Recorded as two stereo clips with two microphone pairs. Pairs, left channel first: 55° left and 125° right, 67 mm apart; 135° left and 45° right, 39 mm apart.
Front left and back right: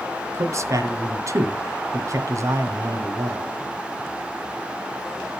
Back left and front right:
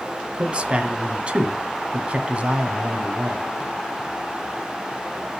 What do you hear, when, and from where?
0.3 s a man speaking: 100° right, 1.7 m